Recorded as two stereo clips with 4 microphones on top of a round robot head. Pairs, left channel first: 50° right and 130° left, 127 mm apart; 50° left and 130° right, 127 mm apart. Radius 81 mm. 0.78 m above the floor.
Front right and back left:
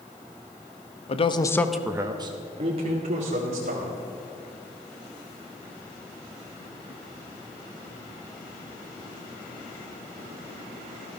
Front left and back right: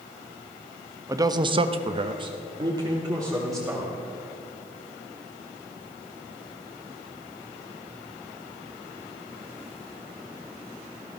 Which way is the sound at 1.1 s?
70° right.